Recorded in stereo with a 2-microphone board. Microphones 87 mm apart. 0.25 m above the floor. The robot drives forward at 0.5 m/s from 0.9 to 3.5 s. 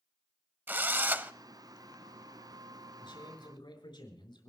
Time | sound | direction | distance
0.7 | a drill | 25° right (ahead or behind) | 0.5 m
3.0 | a man speaking | 60° left (ahead or behind) | 5 m